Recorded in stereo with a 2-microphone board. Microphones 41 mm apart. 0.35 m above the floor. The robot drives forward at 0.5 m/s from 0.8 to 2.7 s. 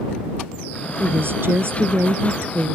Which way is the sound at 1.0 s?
65° right (ahead or behind).